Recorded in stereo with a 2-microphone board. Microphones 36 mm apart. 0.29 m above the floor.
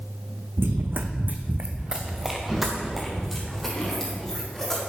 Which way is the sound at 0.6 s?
75° right (ahead or behind).